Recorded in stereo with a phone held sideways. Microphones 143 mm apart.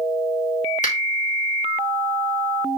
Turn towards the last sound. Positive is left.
turn(degrees=70)  # may be behind; listen again after turning